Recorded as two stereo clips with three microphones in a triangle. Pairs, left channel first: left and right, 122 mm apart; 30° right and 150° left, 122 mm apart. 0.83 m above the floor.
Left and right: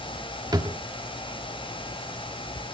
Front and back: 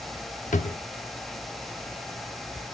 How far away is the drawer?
About 0.8 m.